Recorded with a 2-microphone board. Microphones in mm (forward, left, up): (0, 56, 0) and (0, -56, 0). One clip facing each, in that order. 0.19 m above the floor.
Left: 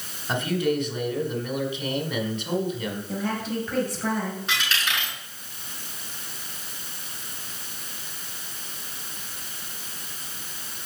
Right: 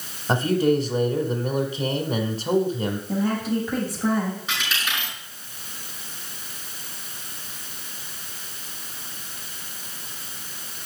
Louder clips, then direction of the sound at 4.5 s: Left 1 dB; centre (ahead or behind).